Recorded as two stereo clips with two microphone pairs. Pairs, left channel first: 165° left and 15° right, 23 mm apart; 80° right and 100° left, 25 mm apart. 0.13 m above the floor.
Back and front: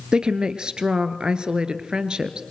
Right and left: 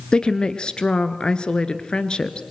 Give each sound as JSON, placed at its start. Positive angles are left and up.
{"t": 0.1, "sound": "a woman speaking", "azimuth_deg": -45, "distance_m": 1.5}